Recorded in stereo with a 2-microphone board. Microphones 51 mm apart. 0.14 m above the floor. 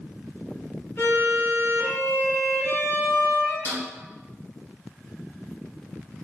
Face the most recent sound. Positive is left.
turn(degrees=65)  # may be behind; listen again after turning